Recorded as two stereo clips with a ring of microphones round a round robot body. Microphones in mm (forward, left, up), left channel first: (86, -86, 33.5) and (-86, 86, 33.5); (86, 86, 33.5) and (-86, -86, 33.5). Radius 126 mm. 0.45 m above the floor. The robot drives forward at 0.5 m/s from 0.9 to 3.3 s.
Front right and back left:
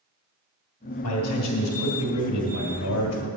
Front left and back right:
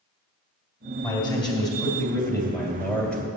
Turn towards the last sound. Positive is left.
turn(degrees=-40)